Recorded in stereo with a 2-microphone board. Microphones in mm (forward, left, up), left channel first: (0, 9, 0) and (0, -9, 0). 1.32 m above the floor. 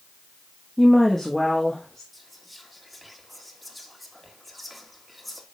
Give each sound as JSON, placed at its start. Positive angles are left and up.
{"t": 0.8, "sound": "a woman speaking", "side_deg": 20, "distance_m": 1.0}
{"t": 2.1, "sound": "whispering", "side_deg": 0, "distance_m": 1.9}